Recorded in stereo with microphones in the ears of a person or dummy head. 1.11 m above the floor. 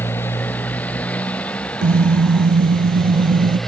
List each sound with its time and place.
0.0 s a motorcycle: 10° left (ahead or behind); by 3.7 s centre (ahead or behind)
1.8 s a car horn: 40° right (ahead or behind)